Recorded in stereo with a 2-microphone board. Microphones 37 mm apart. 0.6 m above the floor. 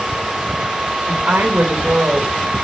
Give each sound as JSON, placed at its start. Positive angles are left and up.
{"t": 1.1, "sound": "a woman speaking", "side_deg": -60, "distance_m": 2.5}